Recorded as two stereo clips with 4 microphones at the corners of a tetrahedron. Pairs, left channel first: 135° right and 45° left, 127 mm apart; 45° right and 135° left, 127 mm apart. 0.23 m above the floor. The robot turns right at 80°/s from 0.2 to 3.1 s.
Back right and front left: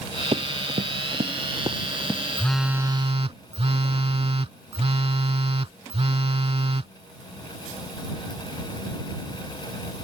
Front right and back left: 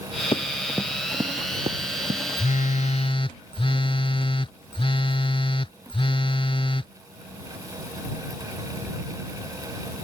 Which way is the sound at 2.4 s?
60° right.